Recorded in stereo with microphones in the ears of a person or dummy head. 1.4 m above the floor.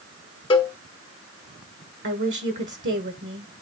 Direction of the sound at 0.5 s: 25° left (ahead or behind).